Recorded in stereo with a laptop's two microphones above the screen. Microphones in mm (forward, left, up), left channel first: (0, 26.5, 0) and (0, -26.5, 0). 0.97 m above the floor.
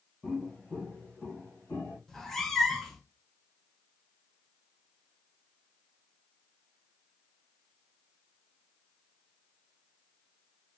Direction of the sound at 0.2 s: 15° left (ahead or behind).